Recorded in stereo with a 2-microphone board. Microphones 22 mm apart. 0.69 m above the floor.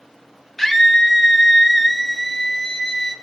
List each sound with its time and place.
0.6 s a scream: 5° left (ahead or behind), 1.6 m